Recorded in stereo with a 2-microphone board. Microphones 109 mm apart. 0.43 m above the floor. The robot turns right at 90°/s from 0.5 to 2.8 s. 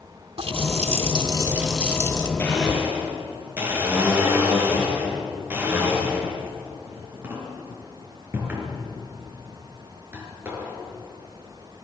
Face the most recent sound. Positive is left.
turn(degrees=-20)  # may be behind; listen again after turning